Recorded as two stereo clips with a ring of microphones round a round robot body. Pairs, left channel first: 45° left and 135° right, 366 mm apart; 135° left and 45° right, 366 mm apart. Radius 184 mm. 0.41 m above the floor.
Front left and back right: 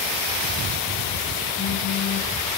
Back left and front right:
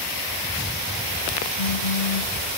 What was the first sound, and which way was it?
A phone buzzing, 130° left.